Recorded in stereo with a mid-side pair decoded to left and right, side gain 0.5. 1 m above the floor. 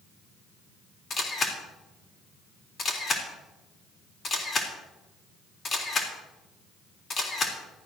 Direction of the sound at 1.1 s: 40° left.